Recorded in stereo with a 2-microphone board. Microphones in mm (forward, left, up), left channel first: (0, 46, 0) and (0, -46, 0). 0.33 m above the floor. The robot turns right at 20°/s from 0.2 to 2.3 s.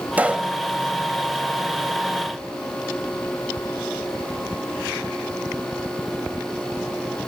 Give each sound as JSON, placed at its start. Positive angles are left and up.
{"t": 0.2, "sound": "a pop", "side_deg": -15, "distance_m": 1.0}